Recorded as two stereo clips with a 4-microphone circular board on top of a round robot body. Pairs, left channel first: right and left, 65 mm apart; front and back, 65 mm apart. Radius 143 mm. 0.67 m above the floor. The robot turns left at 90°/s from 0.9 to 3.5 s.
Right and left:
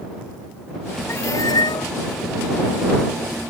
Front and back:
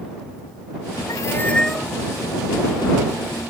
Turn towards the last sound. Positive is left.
turn(degrees=110)